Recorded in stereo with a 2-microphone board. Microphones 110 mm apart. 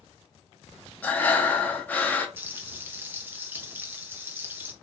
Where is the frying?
15° right (ahead or behind), 0.7 m.